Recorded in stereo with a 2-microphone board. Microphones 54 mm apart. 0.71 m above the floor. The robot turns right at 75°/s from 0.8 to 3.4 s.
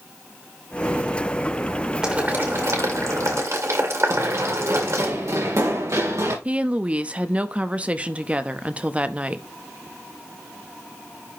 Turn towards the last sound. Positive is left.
turn(degrees=-25)  # may be behind; listen again after turning